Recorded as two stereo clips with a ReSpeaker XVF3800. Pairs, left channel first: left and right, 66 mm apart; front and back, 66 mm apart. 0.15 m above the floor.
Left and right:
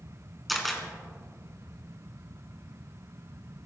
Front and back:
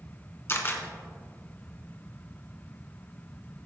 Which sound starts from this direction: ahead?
A camera shutter, at 0.5 s.